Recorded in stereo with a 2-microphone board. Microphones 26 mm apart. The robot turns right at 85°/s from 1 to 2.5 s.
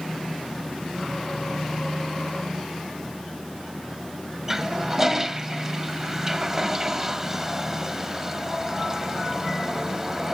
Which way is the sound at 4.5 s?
20° right (ahead or behind).